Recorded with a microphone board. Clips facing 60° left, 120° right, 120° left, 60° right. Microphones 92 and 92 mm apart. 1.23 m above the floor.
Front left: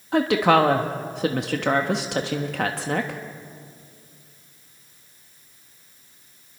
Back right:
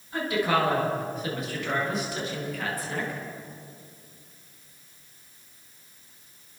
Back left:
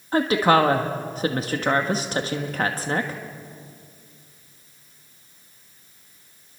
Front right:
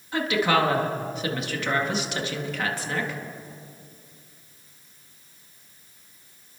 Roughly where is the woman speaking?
Left.